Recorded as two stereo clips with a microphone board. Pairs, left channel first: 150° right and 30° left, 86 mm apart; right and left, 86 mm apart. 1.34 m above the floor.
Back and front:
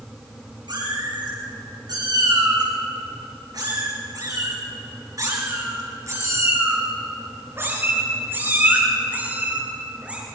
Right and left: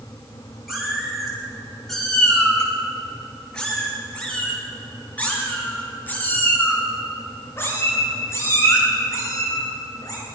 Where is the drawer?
No drawer in this recording.